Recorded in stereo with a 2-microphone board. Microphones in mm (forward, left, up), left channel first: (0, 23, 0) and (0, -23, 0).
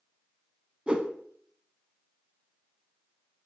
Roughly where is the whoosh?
Right.